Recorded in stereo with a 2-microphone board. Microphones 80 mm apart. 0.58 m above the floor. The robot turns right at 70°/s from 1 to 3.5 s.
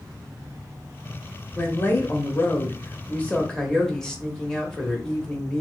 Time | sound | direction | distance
1.6 | a woman speaking | 30° left | 1.0 m